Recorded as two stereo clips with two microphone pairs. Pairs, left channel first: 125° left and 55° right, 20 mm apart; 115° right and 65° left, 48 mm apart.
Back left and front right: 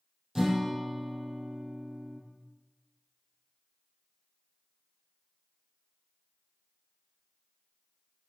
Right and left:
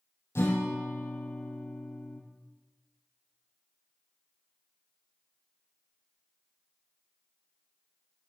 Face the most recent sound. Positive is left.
turn(degrees=-130)